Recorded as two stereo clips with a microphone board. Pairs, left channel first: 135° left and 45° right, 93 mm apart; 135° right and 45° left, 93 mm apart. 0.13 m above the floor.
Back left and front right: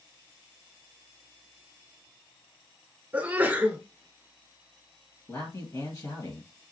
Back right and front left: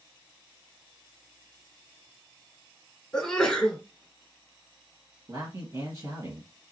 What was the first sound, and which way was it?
A sneeze, 65° right.